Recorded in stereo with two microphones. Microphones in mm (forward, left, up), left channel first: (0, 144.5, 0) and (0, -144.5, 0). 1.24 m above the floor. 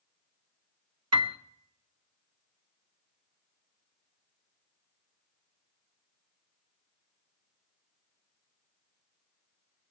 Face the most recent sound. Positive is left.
turn(degrees=-60)  # may be behind; listen again after turning